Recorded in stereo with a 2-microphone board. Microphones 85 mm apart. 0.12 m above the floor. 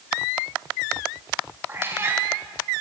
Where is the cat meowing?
25° right (ahead or behind), 4.5 m.